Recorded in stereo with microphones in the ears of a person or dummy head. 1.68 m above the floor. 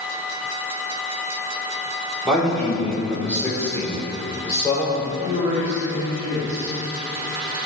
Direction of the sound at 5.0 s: 25° right (ahead or behind).